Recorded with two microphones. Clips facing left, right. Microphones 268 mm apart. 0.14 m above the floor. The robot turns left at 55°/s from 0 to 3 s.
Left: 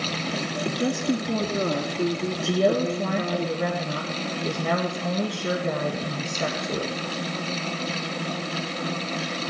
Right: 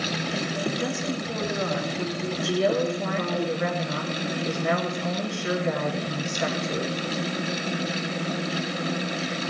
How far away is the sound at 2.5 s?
About 2.0 m.